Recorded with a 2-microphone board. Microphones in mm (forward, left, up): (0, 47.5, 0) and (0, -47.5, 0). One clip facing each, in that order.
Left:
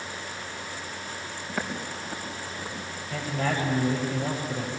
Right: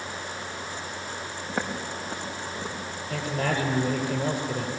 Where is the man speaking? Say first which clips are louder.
Right 1 dB; 60° right (ahead or behind), 7 m.